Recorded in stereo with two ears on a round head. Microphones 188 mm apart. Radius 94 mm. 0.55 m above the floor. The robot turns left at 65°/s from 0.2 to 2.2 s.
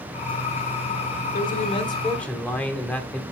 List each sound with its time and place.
1.3 s a man speaking: 65° left, 1.4 m; by 3.2 s 5° left, 1.4 m